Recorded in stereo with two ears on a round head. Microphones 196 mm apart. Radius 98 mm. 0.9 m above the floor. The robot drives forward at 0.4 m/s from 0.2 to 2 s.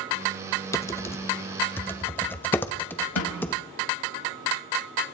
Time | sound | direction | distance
0.7 | typing on a keyboard | 15° left (ahead or behind) | 0.8 m
3.2 | a snare drum | 85° left | 5.5 m